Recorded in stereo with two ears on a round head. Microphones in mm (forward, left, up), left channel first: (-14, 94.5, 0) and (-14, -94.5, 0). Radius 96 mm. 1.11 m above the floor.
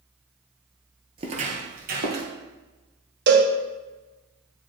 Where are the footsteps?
25° right (ahead or behind), 1.2 m; by 2.3 s 50° right (ahead or behind), 1.8 m.